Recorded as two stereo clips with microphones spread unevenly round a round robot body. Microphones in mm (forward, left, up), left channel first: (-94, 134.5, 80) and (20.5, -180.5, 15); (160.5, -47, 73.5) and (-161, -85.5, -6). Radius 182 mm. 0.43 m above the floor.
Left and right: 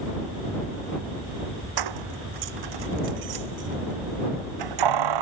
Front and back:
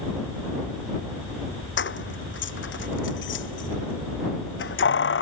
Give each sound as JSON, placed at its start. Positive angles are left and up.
{"t": 1.8, "sound": "keys jangling", "azimuth_deg": -50}